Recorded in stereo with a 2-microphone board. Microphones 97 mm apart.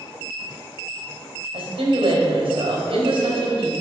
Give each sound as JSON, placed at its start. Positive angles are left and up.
{"t": 1.5, "sound": "a woman speaking", "side_deg": -75, "distance_m": 3.0}